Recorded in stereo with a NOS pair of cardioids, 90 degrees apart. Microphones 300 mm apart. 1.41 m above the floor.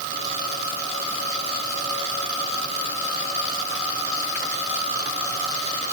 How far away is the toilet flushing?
I don't hear a toilet flushing.